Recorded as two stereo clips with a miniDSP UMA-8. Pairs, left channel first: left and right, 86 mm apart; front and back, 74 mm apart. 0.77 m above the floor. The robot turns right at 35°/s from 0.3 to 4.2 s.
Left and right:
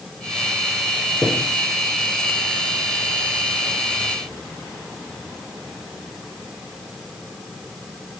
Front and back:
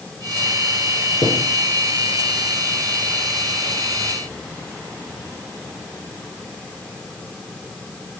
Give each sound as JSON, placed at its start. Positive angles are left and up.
{"t": 1.2, "sound": "a thud", "azimuth_deg": 10, "distance_m": 4.5}